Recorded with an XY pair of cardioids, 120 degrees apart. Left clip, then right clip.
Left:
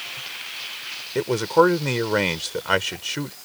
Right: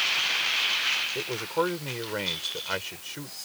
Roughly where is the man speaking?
Ahead left.